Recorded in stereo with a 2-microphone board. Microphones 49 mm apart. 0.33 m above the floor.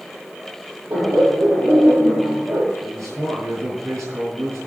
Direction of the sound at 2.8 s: 75° right (ahead or behind).